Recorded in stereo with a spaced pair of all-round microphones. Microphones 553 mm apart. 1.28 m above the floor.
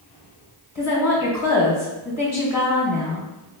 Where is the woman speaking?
60° left (ahead or behind), 1.2 m.